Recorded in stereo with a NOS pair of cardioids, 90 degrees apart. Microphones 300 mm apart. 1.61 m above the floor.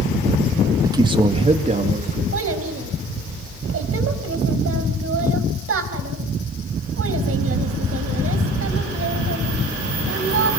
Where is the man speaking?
10° right, 2.5 m; by 2.2 s 30° right, 4 m.